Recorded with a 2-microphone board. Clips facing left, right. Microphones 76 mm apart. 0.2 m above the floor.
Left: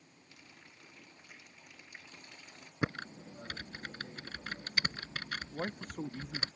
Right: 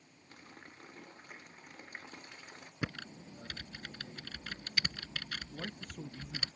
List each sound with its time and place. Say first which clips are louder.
0.3 s a running tap: right 6 dB; 40° right (ahead or behind)
2.8 s typing on a keyboard: left 5 dB; 30° left (ahead or behind)
5.5 s a man speaking: left 5 dB; 45° left (ahead or behind)